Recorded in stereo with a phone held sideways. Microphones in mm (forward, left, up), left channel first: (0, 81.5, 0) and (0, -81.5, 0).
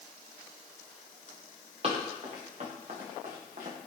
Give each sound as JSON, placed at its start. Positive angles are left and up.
{"t": 1.8, "sound": "running footsteps", "side_deg": -45, "distance_m": 6.0}